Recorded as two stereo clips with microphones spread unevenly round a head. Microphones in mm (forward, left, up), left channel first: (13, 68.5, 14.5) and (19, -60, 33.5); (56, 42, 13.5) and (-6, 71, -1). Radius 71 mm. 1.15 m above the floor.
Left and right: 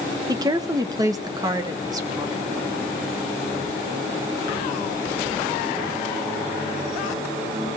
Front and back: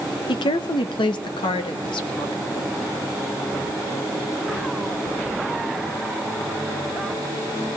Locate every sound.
0.3 s a woman speaking: 20° right, 0.9 m; by 2.7 s 25° right, 2.5 m